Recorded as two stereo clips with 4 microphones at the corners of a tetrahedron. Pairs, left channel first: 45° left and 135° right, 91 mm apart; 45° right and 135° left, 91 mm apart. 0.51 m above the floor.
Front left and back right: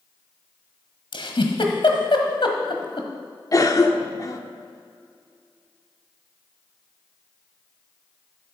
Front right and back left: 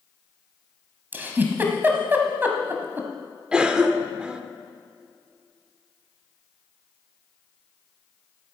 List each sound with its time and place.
1.1 s a giggle: 65° left, 1.6 m
3.5 s a cough: 60° left, 1.1 m